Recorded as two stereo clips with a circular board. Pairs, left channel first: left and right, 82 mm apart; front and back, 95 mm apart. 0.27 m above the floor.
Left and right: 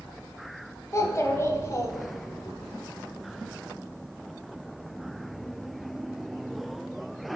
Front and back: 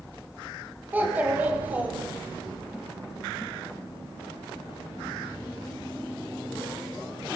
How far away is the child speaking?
About 0.7 m.